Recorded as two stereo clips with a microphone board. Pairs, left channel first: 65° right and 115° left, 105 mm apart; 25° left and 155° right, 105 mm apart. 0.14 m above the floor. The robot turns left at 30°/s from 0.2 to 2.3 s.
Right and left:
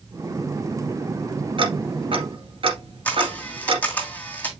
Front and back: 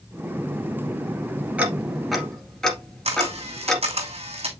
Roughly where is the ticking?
Behind left.